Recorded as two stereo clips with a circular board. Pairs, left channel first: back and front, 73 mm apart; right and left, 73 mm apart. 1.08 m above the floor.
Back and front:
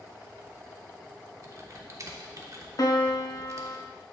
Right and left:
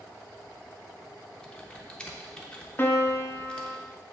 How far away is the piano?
About 0.7 m.